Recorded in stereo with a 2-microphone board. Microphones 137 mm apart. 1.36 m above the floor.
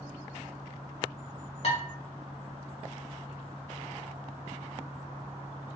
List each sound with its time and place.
1.6 s dishes clattering: 50° left (ahead or behind), 1.1 m